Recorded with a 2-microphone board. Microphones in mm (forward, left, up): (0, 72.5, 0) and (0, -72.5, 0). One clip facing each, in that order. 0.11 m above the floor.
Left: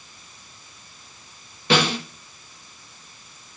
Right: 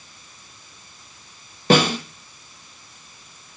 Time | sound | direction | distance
1.7 | a snare drum | 45° right (ahead or behind) | 2.5 m